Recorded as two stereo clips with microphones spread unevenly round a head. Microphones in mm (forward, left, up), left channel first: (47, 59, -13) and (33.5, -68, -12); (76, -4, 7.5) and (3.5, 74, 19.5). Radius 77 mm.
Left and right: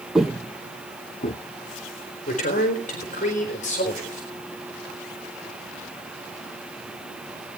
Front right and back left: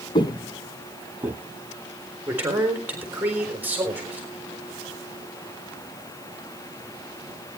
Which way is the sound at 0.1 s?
15° right.